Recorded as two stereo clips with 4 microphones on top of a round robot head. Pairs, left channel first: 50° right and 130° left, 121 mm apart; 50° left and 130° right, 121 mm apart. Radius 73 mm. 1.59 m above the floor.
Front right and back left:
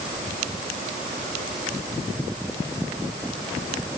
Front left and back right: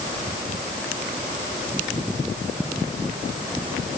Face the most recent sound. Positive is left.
No sound to turn to.